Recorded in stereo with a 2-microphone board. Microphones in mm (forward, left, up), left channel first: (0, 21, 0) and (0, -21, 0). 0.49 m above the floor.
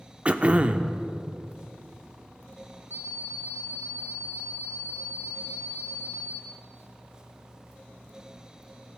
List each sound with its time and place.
0.2 s throat clearing: 30° right (ahead or behind), 0.5 m
2.9 s an alarm clock: 70° right (ahead or behind), 3.5 m